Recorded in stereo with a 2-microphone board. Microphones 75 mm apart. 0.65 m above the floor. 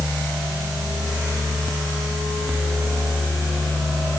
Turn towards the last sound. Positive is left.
No sound to turn to.